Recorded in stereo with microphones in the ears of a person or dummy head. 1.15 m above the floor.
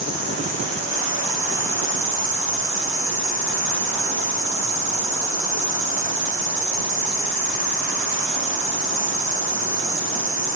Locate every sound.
0.0 s an insect: 35° right (ahead or behind), 5 m